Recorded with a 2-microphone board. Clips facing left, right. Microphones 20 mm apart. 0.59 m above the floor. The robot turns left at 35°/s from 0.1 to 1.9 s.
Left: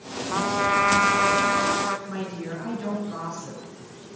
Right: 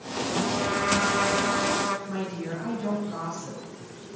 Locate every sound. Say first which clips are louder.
0.3 s a trumpet: left 5 dB; 110° left, 1.0 m; by 2.0 s 55° left, 1.0 m
2.1 s a woman speaking: even; 50° left (ahead or behind), 6.5 m